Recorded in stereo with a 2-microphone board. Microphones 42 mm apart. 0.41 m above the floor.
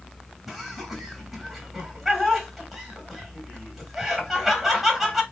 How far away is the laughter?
About 2.5 m.